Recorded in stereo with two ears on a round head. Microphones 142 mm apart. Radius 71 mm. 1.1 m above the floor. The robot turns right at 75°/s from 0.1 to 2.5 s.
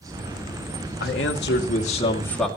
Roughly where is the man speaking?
Left.